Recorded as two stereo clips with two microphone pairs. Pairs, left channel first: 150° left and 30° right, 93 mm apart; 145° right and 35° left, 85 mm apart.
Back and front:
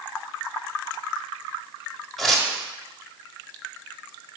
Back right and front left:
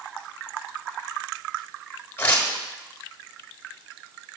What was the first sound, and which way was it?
Tearing paper, 120° right.